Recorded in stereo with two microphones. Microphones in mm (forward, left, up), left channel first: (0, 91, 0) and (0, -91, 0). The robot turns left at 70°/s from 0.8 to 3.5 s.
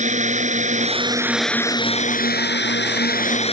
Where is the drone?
135° right; by 3.5 s 35° left.